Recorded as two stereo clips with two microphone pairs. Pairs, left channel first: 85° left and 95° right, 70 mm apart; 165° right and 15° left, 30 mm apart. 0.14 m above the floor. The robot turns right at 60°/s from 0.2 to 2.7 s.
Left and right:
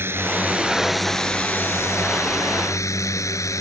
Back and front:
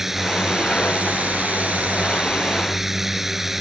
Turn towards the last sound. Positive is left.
turn(degrees=95)